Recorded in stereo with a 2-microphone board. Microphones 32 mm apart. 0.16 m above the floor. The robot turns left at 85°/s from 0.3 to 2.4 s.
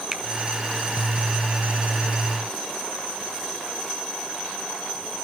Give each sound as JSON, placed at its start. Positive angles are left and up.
{"t": 0.1, "sound": "a finger snap", "side_deg": -15, "distance_m": 1.1}